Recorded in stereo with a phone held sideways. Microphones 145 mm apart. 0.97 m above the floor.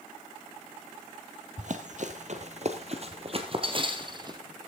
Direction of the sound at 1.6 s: 60° right (ahead or behind).